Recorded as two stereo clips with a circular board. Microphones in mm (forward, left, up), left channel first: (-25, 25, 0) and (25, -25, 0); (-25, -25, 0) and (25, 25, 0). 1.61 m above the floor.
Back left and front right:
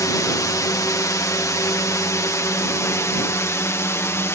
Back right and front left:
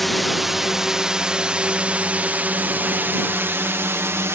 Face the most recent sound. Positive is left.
turn(degrees=95)